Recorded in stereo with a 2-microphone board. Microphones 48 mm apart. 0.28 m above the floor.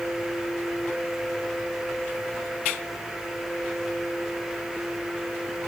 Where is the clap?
I don't hear a clap.